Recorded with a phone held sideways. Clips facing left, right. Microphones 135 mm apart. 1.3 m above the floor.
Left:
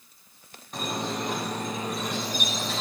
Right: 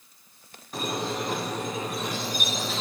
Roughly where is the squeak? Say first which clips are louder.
Right 1 dB; centre.